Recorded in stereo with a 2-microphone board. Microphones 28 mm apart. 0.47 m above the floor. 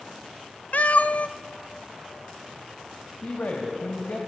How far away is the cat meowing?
About 0.6 m.